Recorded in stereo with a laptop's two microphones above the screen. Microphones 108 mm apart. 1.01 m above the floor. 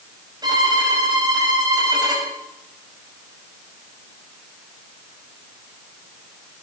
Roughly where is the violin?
Right.